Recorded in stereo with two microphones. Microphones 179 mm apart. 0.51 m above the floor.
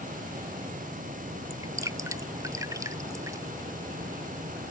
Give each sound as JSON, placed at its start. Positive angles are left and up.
{"t": 1.5, "sound": "dripping", "side_deg": -15}